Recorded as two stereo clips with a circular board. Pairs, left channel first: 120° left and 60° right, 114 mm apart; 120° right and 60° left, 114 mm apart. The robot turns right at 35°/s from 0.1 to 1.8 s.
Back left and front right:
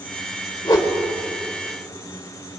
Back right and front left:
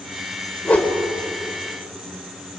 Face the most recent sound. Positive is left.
turn(degrees=-155)